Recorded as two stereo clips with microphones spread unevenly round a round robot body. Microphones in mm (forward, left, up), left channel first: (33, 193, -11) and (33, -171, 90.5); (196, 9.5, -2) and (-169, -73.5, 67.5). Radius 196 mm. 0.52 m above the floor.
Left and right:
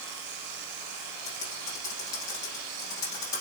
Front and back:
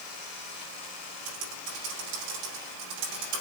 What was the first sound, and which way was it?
Typing on a keyboard, 170° left.